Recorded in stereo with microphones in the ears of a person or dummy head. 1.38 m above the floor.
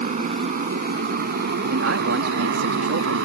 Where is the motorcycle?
45° right (ahead or behind); by 3.2 s 75° right (ahead or behind).